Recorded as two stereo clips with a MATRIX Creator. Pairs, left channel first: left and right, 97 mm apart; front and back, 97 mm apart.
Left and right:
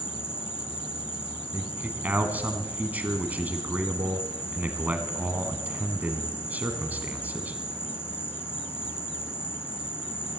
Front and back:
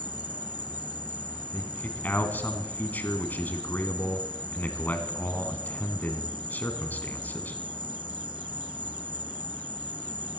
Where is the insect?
155° left, 2 m.